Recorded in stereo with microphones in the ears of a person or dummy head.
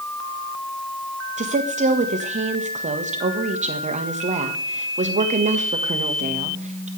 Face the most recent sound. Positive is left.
turn(degrees=-40)  # may be behind; listen again after turning